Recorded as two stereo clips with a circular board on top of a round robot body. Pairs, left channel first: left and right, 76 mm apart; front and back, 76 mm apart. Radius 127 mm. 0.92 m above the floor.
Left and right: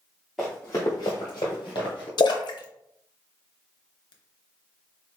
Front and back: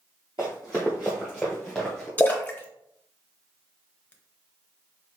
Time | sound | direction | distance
0.4 | running footsteps | 175° right | 0.9 m
2.2 | a splash | 70° left | 0.6 m